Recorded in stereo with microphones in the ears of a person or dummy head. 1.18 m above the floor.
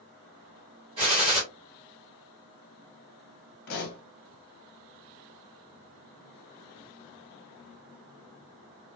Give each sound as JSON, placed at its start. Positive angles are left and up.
{"t": 1.0, "sound": "a gunshot", "side_deg": -25, "distance_m": 1.6}
{"t": 3.7, "sound": "a pop", "side_deg": 55, "distance_m": 0.8}